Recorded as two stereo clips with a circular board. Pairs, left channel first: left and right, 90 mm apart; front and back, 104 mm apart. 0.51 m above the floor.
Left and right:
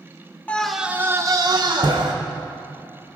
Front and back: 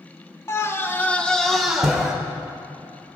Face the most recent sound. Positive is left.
turn(degrees=-95)